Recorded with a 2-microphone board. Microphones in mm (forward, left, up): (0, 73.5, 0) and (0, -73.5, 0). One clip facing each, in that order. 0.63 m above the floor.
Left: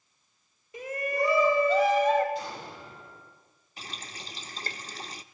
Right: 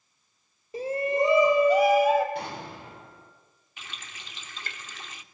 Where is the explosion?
65° right (ahead or behind), 6 m.